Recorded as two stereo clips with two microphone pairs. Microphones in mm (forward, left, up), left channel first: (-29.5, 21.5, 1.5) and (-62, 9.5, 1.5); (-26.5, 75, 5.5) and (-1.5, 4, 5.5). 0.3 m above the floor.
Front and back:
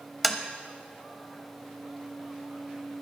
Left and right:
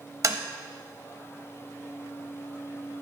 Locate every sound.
0.2 s tapping: 75° right, 0.7 m